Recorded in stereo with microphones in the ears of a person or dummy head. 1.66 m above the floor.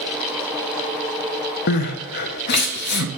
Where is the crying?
50° left (ahead or behind), 0.6 m.